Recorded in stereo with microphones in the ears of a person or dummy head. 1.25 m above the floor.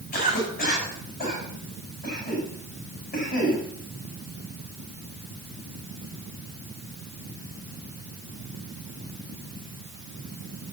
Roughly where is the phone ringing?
No phone ringing in this recording.